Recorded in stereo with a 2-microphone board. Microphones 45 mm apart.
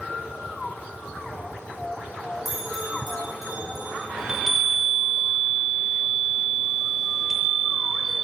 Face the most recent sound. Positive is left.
turn(degrees=-10)  # may be behind; listen again after turning